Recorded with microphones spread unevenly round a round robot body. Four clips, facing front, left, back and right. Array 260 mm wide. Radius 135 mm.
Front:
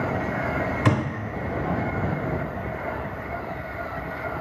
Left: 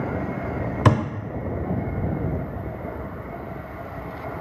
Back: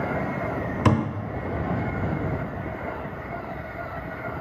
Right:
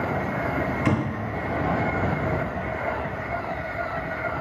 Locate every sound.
0.8 s a thud: 110° left, 0.8 m